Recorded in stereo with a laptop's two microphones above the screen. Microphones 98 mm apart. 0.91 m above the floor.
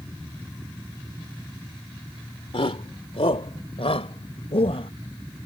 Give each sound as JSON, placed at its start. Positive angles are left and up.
{"t": 2.5, "sound": "a shout", "side_deg": 85}